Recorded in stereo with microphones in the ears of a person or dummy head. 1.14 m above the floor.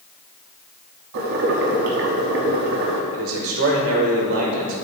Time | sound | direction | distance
1.1 | boiling | 60° right (ahead or behind) | 1.0 m
3.1 | a man speaking | 45° right (ahead or behind) | 0.8 m